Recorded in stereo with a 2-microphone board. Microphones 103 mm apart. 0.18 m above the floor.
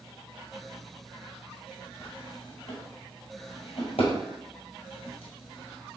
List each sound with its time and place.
2.0 s a drawer: 75° left (ahead or behind), 1.8 m